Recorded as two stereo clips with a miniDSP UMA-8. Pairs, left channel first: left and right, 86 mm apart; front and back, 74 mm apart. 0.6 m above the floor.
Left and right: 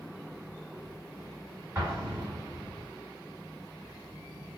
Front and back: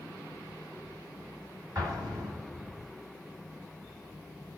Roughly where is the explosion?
Behind right.